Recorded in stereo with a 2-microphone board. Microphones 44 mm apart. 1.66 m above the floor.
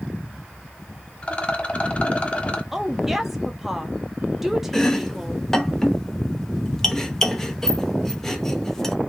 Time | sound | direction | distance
1.2 | a rattle | 25° left (ahead or behind) | 0.8 m
2.7 | a woman speaking | 5° right (ahead or behind) | 0.8 m
4.7 | chopping | 10° left (ahead or behind) | 0.7 m